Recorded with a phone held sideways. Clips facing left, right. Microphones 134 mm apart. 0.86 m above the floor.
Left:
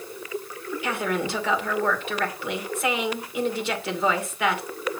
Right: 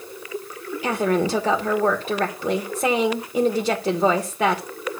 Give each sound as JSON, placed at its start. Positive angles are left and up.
{"t": 0.8, "sound": "a woman speaking", "side_deg": -40, "distance_m": 2.0}